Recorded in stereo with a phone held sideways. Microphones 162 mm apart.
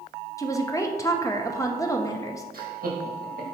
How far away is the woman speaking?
About 0.7 m.